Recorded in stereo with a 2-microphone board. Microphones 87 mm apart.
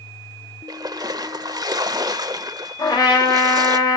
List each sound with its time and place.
0.7 s a splash: 50° right (ahead or behind), 0.5 m
2.8 s a trumpet: 55° left (ahead or behind), 2.5 m